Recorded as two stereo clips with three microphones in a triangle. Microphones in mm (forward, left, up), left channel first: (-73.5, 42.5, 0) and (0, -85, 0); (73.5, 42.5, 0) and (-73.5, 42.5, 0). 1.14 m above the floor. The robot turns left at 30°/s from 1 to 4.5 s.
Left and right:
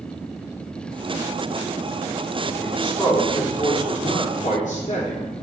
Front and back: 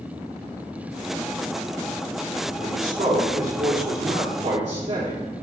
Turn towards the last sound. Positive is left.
turn(degrees=145)